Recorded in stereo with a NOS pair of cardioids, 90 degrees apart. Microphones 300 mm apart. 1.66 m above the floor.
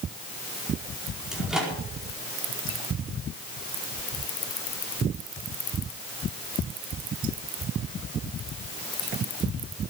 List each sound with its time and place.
1.3 s a microwave: straight ahead, 4.5 m